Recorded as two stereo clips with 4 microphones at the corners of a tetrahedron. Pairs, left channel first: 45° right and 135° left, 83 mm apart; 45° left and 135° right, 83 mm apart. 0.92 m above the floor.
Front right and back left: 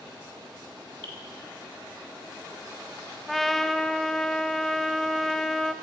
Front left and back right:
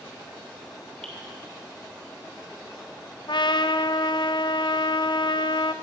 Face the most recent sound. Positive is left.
turn(degrees=45)